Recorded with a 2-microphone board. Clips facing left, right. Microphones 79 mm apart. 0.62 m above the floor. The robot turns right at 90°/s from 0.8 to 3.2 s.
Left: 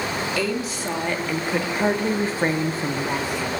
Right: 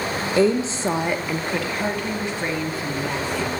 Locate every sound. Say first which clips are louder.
0.4 s a woman speaking: right 6 dB; 50° right, 0.7 m; by 3.5 s 165° left, 0.7 m